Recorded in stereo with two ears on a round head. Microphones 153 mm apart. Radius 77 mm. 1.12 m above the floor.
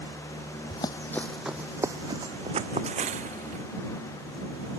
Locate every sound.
0.7 s running footsteps: 30° left (ahead or behind); by 3.6 s 45° right (ahead or behind)